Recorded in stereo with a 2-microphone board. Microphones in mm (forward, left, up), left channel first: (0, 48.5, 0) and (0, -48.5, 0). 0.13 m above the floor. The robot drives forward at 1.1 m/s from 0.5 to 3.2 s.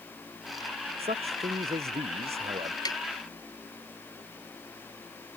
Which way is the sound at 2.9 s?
40° left (ahead or behind).